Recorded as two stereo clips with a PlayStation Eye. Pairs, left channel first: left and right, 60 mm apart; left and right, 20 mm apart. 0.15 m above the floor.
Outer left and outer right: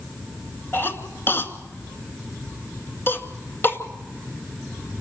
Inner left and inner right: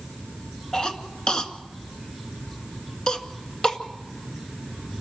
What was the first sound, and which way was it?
A cough, 40° left (ahead or behind).